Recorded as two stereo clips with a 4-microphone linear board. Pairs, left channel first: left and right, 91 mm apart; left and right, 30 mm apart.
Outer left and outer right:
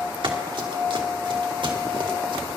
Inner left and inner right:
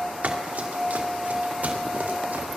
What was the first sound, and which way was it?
Running footsteps, 65° right (ahead or behind).